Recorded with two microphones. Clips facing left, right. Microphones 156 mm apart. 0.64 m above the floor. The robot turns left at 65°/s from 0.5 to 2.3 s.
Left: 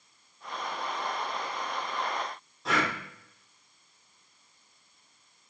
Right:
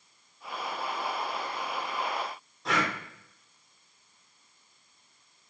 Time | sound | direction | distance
2.6 | breathing | centre (ahead or behind) | 1.6 m